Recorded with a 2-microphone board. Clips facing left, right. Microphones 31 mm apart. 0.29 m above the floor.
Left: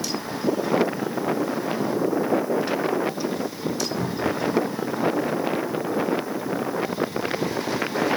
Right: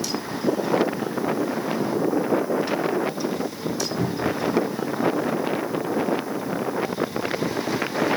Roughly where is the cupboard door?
Right.